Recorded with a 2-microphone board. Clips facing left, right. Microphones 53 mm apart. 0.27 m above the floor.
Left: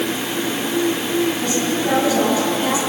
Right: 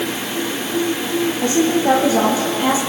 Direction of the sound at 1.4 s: 40° right (ahead or behind).